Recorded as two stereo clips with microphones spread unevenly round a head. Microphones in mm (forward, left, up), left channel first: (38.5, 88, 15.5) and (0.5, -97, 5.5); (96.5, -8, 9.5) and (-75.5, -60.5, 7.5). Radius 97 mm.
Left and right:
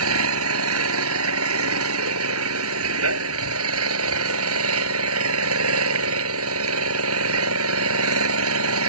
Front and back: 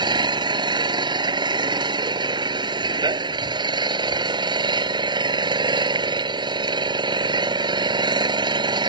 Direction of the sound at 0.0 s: 95° right.